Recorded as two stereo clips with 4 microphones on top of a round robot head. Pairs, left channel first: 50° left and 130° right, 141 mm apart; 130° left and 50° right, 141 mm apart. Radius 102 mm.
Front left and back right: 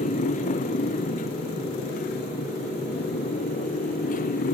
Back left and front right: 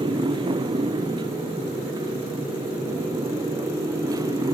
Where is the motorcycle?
10° left; by 4.5 s 20° left.